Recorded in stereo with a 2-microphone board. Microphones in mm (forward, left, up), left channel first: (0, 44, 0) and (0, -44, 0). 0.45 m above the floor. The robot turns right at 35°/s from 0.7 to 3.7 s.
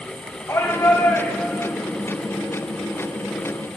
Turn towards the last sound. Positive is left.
turn(degrees=-115)